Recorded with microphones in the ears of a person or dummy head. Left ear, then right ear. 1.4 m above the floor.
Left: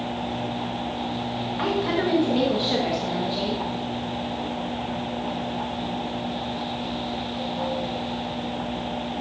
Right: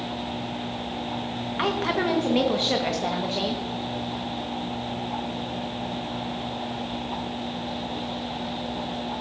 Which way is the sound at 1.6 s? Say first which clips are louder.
Even; 35° right (ahead or behind).